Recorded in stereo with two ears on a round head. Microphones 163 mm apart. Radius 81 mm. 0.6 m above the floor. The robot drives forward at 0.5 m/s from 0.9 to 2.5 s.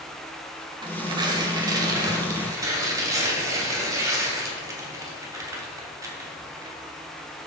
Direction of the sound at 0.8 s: 25° right (ahead or behind).